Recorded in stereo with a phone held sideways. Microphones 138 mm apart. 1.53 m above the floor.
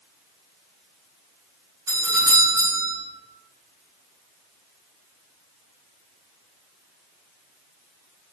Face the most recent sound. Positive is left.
turn(degrees=-20)  # may be behind; listen again after turning